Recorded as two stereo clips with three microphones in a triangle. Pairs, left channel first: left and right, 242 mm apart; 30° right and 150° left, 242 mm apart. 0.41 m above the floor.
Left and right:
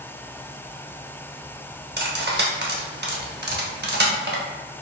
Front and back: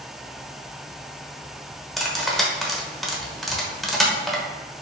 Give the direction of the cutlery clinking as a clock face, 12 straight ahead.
4 o'clock.